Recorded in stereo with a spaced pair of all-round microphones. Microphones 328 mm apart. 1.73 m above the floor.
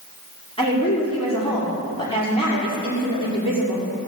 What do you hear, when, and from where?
0.6 s a woman speaking: 15° left (ahead or behind), 6 m